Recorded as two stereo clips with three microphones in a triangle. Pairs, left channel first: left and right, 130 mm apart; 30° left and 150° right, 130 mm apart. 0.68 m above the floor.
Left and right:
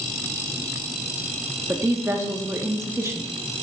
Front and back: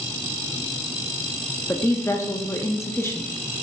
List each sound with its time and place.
1.7 s a woman speaking: 30° right, 0.8 m